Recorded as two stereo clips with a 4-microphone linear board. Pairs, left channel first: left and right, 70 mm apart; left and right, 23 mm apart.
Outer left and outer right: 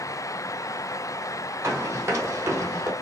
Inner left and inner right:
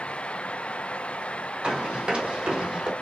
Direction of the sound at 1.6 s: 40° right (ahead or behind).